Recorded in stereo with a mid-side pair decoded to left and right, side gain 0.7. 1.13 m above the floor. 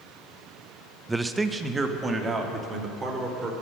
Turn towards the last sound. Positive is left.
turn(degrees=-25)